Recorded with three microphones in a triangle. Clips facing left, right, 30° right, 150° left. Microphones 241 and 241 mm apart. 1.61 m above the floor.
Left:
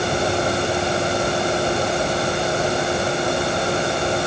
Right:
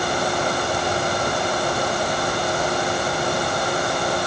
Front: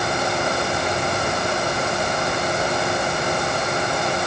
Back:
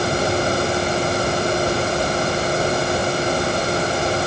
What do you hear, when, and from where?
Only background noise.